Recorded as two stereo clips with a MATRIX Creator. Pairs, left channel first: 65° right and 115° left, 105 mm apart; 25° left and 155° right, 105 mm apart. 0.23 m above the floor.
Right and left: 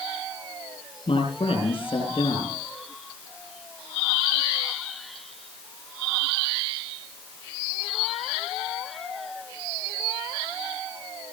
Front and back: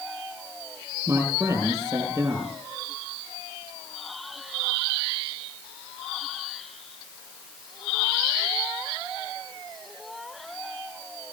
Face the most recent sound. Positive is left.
turn(degrees=-100)